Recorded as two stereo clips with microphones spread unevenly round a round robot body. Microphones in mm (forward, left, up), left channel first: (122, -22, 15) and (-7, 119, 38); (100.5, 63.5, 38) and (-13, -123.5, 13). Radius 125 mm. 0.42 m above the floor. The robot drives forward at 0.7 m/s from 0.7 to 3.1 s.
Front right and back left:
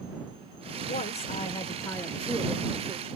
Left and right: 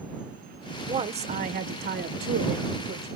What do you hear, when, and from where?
0.9 s a woman speaking: 70° right, 1.2 m; by 3.1 s 145° right, 1.6 m